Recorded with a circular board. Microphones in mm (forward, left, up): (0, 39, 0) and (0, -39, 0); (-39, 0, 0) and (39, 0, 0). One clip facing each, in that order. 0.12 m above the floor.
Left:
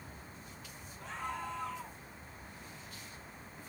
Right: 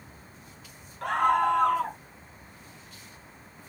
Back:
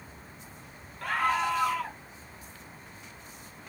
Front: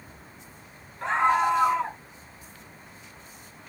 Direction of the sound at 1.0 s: 65° right.